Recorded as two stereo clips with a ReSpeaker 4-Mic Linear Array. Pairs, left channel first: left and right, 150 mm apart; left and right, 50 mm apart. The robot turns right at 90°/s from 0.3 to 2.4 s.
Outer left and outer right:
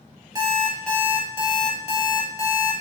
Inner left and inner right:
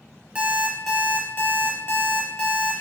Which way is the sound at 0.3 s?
35° right.